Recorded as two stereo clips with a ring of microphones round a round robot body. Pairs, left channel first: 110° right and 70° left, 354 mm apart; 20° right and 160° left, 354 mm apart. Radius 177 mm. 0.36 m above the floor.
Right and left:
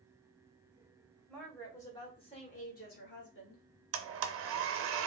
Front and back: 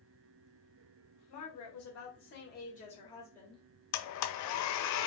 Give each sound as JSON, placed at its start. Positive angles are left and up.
{"t": 1.3, "sound": "a woman speaking", "azimuth_deg": -25, "distance_m": 1.9}
{"t": 3.9, "sound": "a blender", "azimuth_deg": 15, "distance_m": 0.6}